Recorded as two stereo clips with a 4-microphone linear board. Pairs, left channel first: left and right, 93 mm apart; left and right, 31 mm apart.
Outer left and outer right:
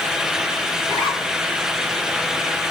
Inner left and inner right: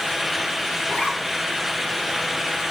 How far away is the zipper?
About 6.5 m.